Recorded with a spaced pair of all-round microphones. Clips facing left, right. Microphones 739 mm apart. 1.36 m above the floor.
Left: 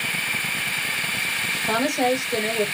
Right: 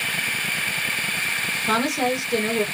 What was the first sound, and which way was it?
A woman speaking, 40° right (ahead or behind).